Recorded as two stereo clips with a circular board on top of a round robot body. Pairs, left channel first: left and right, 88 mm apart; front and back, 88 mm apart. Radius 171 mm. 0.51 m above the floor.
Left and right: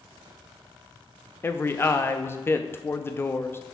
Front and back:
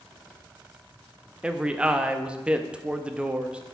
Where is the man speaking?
115° left, 0.8 m.